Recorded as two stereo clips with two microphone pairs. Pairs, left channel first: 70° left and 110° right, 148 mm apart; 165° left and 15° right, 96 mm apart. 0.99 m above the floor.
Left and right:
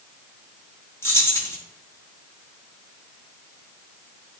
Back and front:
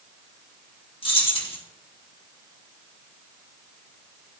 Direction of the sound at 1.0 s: 140° left.